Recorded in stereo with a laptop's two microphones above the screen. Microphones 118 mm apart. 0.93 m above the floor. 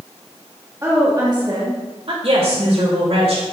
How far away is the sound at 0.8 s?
About 1.3 m.